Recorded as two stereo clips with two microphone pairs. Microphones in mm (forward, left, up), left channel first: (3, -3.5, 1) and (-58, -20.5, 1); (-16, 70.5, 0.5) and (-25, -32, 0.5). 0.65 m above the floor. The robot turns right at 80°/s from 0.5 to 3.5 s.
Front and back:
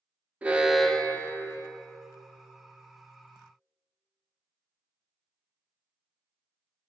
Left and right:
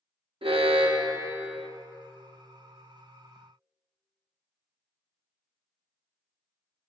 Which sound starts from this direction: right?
An alarm, at 0.4 s.